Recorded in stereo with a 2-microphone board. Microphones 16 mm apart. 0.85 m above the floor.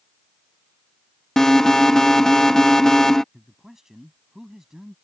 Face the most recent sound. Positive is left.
turn(degrees=-30)  # may be behind; listen again after turning